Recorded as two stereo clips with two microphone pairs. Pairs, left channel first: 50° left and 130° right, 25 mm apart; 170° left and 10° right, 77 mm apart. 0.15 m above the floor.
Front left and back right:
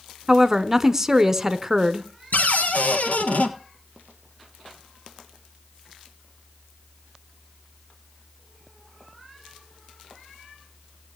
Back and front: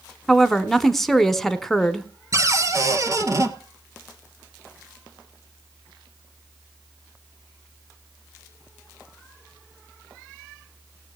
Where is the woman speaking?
110° right, 1.0 m.